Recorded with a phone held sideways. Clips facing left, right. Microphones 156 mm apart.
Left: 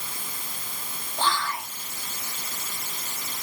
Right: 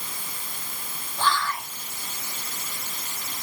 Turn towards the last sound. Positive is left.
turn(degrees=20)  # may be behind; listen again after turning